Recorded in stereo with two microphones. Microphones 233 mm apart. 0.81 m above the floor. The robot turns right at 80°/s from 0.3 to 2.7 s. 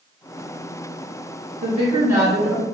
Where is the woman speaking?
65° right, 1.7 m; by 2.6 s 20° left, 1.7 m.